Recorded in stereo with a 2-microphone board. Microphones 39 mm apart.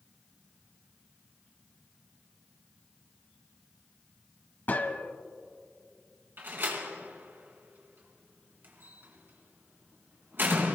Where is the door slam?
55° right (ahead or behind), 2.5 m.